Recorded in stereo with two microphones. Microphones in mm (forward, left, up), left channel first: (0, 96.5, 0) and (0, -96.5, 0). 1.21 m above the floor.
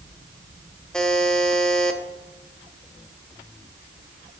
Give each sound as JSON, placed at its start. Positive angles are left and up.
{"t": 0.9, "sound": "a buzzer", "side_deg": 5, "distance_m": 1.0}